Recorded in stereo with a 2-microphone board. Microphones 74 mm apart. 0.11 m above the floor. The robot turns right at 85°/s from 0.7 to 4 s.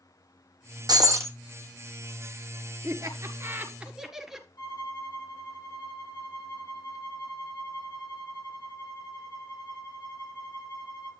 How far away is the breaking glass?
About 1.1 m.